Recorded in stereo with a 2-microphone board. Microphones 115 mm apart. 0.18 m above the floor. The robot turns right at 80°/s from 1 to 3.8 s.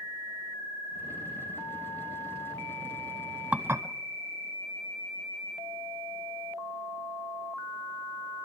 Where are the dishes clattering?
10° right (ahead or behind), 0.8 m; by 3.9 s 25° right (ahead or behind), 0.8 m.